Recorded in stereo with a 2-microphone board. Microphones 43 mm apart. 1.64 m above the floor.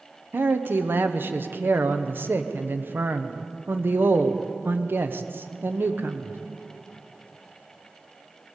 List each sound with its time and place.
0.3 s a man speaking: 55° right (ahead or behind), 0.9 m